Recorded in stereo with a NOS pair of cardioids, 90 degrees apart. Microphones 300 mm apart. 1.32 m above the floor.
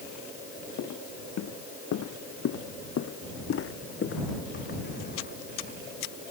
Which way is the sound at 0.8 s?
70° left.